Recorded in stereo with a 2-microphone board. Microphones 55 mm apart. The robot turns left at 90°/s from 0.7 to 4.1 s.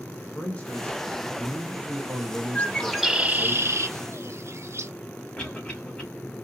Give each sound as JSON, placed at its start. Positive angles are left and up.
{"t": 0.3, "sound": "a man speaking", "azimuth_deg": 55, "distance_m": 1.1}
{"t": 2.5, "sound": "a bird", "azimuth_deg": 35, "distance_m": 0.7}
{"t": 5.4, "sound": "a cough", "side_deg": 25, "distance_m": 2.5}